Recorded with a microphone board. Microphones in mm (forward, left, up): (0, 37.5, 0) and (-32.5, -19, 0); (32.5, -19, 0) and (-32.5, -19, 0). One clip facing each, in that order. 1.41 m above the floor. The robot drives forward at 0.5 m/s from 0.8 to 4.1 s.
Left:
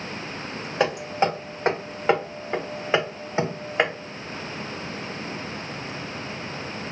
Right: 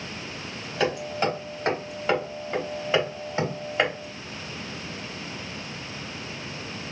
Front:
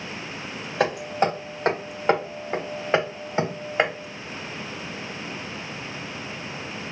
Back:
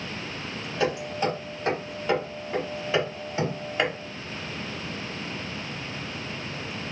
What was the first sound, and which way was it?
Hammering, 5° left.